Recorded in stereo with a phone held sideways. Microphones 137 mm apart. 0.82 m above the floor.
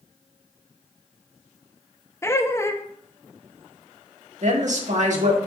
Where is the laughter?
20° left (ahead or behind), 0.6 m.